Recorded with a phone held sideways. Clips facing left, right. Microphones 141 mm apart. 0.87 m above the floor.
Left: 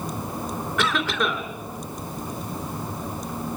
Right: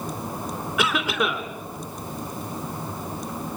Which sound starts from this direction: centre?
A cough, at 0.8 s.